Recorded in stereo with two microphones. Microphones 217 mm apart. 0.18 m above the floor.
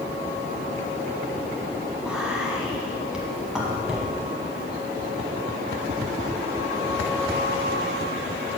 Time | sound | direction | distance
2.0 | whispering | 5° right (ahead or behind) | 1.0 m